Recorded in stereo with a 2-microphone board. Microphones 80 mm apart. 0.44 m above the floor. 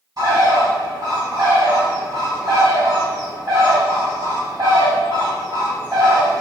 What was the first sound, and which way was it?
A bird, 50° right (ahead or behind).